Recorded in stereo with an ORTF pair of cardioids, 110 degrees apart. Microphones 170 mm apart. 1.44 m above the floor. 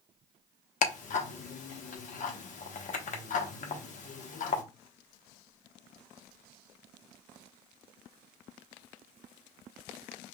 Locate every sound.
0.8 s ticking: 50° left, 0.9 m